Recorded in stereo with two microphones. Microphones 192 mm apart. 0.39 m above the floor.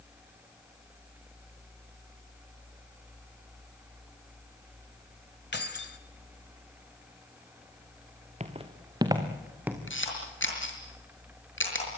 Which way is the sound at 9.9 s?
75° left (ahead or behind).